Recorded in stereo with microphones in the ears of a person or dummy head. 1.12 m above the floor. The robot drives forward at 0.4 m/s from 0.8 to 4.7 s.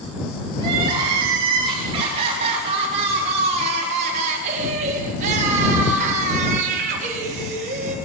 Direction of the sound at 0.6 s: 25° right (ahead or behind).